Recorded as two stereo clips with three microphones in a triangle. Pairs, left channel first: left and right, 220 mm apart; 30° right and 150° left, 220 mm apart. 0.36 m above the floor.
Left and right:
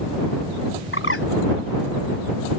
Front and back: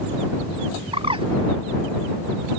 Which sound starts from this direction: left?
A bird, at 0.9 s.